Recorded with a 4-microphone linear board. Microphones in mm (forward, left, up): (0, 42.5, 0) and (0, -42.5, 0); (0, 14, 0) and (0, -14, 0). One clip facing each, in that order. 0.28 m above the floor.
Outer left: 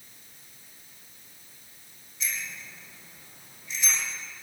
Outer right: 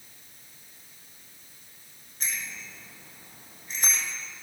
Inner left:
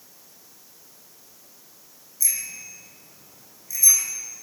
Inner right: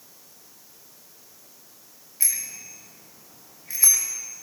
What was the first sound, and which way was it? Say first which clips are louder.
A bicycle bell: even, inner left 1 dB; 45° right (ahead or behind).